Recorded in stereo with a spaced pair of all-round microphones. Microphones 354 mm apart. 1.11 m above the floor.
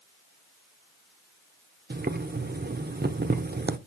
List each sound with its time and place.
1.9 s boiling: 30° right (ahead or behind), 0.5 m